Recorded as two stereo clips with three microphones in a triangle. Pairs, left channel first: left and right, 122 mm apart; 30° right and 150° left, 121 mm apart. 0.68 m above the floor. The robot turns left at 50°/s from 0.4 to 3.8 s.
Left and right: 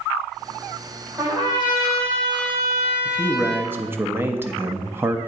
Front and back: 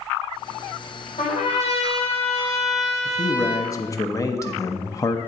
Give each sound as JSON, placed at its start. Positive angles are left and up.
{"t": 1.2, "sound": "a trumpet", "azimuth_deg": -25, "distance_m": 2.0}
{"t": 3.0, "sound": "a man speaking", "azimuth_deg": -5, "distance_m": 0.6}